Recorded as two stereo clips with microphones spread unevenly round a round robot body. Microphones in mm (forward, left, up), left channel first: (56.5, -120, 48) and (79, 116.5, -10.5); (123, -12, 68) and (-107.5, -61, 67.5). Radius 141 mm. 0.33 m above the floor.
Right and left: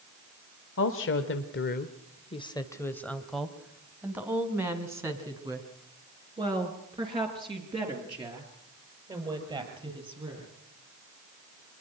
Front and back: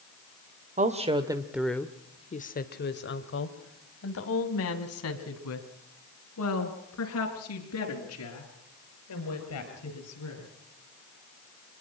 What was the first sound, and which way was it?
A woman speaking, 125° right.